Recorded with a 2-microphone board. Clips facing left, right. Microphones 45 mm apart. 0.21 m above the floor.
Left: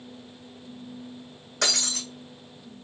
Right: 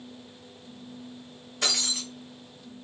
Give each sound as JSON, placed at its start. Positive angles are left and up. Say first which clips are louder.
{"t": 1.6, "sound": "breaking glass", "louder": "left 1 dB", "side_deg": 85, "distance_m": 1.8}